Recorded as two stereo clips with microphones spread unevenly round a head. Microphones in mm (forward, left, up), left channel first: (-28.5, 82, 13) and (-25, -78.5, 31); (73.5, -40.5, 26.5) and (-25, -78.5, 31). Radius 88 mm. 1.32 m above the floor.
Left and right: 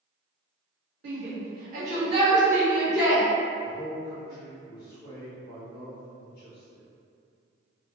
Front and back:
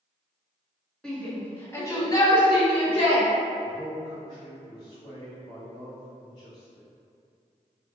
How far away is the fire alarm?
No fire alarm in this recording.